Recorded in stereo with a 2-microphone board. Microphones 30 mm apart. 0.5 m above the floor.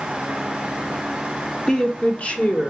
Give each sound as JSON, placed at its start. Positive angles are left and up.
{"t": 1.7, "sound": "a woman speaking", "side_deg": 25, "distance_m": 1.3}